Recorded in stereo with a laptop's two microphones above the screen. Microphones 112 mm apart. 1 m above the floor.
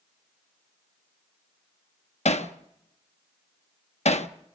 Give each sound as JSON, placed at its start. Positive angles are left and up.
{"t": 2.2, "sound": "hammering", "side_deg": 75, "distance_m": 0.9}